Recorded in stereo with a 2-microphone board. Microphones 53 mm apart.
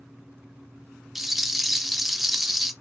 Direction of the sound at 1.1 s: 5° right (ahead or behind).